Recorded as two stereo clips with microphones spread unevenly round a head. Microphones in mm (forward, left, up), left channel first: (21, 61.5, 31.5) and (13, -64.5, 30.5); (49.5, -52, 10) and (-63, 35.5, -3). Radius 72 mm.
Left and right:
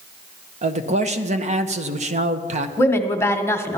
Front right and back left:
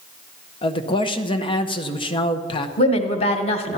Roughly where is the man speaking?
Right.